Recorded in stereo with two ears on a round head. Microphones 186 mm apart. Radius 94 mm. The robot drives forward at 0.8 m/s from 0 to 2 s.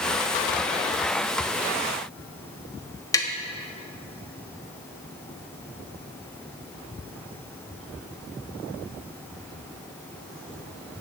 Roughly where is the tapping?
Centre.